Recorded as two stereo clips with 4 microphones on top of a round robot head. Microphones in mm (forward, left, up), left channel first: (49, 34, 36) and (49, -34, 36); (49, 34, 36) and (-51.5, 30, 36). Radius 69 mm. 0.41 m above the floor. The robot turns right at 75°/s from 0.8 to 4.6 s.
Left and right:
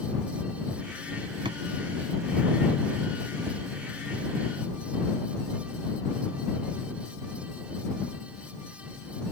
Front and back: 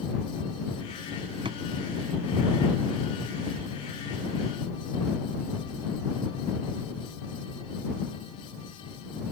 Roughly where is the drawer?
Behind right.